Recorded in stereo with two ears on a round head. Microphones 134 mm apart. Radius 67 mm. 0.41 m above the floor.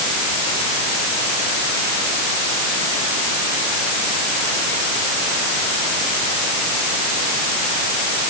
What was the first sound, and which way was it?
Only background noise.